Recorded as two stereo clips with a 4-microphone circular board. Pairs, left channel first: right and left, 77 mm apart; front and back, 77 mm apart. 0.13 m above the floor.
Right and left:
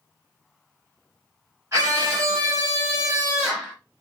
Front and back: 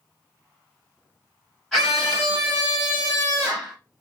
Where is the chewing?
I don't hear chewing.